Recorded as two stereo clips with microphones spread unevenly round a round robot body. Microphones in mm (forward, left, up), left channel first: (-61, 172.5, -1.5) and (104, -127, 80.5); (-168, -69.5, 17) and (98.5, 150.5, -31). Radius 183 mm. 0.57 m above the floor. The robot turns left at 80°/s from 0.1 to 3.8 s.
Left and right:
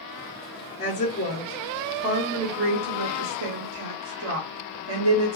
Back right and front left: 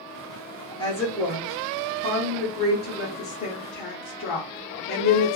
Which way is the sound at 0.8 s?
140° left.